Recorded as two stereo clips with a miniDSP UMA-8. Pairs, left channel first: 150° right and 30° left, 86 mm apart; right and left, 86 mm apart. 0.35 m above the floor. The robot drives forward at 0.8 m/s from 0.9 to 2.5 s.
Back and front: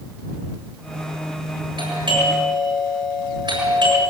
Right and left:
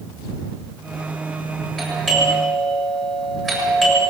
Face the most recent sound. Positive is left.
turn(degrees=0)